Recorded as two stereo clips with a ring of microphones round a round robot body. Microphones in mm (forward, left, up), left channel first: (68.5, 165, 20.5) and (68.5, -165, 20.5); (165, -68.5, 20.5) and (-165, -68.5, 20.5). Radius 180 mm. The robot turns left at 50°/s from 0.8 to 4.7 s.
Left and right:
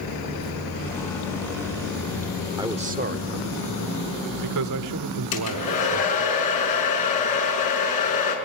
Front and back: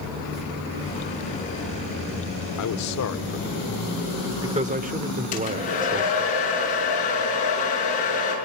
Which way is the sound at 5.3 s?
70° left.